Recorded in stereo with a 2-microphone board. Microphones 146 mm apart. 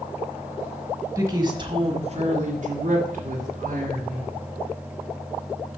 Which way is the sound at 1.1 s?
20° right (ahead or behind).